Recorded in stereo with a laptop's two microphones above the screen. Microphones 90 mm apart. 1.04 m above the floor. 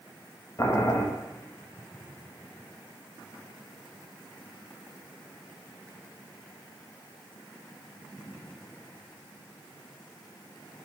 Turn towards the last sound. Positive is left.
turn(degrees=35)  # may be behind; listen again after turning